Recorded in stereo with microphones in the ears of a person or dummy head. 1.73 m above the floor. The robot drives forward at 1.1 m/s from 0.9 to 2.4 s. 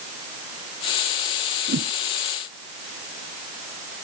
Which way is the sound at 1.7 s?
50° right (ahead or behind).